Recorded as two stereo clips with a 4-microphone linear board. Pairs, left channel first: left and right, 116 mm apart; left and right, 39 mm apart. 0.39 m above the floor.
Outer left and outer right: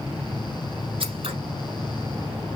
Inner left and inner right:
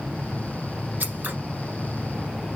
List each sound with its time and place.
1.0 s scissors: 55° right (ahead or behind), 1.3 m